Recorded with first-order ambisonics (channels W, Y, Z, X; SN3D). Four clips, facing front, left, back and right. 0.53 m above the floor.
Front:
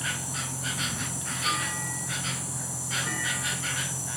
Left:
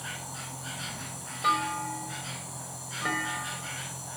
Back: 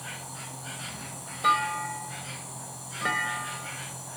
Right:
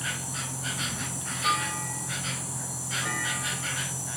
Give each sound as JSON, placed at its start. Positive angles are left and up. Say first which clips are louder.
{"t": 0.0, "sound": "an insect", "louder": "right 6 dB, front 8 dB", "azimuth_deg": -35, "distance_m": 0.8}
{"t": 1.4, "sound": "a clunk", "louder": "left 1 dB, back 6 dB", "azimuth_deg": 160, "distance_m": 2.0}